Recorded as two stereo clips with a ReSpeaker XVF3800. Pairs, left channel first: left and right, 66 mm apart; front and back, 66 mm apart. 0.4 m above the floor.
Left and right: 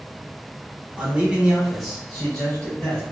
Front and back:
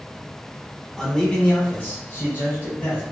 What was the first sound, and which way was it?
A man speaking, 75° right.